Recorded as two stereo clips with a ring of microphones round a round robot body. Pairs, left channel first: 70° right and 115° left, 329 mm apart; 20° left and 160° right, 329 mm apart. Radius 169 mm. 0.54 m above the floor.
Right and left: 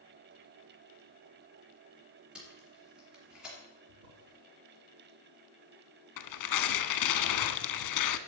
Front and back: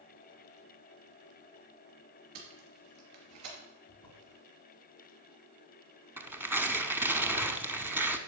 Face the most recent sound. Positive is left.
turn(degrees=-75)